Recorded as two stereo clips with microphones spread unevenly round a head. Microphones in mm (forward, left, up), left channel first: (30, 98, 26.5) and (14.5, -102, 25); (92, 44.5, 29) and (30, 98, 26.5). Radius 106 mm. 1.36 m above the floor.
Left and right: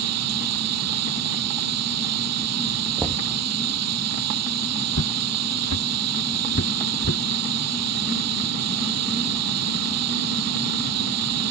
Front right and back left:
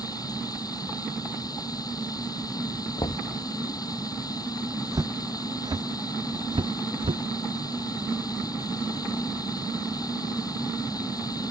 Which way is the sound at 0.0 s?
115° right.